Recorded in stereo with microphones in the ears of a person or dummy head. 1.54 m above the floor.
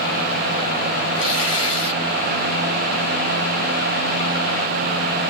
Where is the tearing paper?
30° left (ahead or behind), 3 m.